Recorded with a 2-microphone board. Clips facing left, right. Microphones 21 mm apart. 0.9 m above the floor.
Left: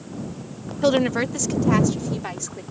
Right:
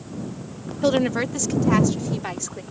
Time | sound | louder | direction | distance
0.8 | a woman speaking | left 1 dB | 15° left (ahead or behind) | ?